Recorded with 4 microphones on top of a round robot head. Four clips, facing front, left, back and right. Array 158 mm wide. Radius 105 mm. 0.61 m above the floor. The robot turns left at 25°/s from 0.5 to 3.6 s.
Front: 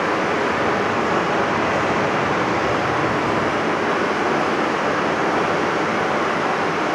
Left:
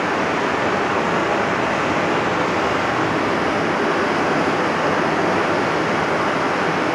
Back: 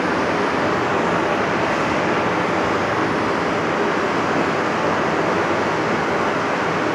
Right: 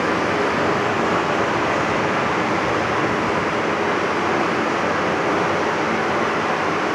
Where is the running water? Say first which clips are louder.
Even, back 1 dB; 145° right, 6 m; by 7.0 s 135° left, 6 m.